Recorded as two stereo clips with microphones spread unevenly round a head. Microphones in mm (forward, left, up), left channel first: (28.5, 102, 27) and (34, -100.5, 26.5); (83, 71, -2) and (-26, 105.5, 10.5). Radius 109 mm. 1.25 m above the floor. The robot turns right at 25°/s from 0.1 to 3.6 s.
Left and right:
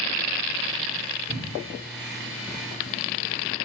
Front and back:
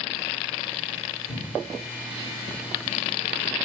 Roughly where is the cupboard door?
Behind.